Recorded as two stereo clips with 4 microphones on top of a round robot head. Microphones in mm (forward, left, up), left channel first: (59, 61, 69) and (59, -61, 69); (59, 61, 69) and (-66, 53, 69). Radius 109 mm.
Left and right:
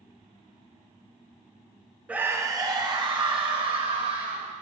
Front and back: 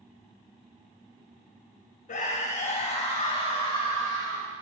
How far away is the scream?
About 0.7 m.